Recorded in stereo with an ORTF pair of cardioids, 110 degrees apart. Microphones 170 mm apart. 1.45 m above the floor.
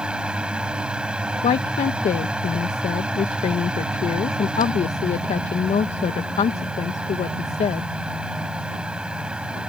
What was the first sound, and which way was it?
A fan, 5° right.